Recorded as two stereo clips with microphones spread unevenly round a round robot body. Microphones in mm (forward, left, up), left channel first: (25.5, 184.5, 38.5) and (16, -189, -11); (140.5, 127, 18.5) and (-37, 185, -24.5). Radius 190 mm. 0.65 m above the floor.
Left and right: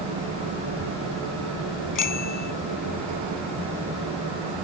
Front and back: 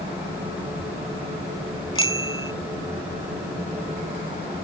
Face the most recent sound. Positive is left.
turn(degrees=45)